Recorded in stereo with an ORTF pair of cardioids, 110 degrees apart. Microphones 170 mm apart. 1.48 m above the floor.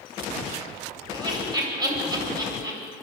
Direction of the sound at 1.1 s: 20° right.